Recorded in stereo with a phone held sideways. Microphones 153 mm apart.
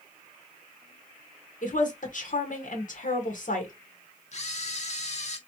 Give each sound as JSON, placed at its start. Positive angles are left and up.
{"t": 1.6, "sound": "a woman speaking", "side_deg": 65, "distance_m": 2.0}
{"t": 4.3, "sound": "a camera shutter", "side_deg": 50, "distance_m": 1.0}